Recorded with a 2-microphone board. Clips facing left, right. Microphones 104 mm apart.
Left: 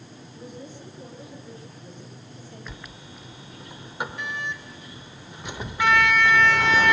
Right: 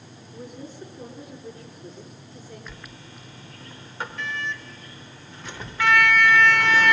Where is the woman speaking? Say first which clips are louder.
Right 2 dB; 40° right (ahead or behind), 8 m.